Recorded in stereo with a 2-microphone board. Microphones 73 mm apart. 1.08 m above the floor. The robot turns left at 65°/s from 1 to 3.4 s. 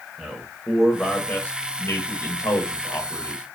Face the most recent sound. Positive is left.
turn(degrees=20)  # may be behind; listen again after turning